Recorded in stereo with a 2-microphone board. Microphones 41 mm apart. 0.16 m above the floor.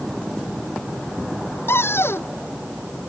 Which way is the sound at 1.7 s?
80° left.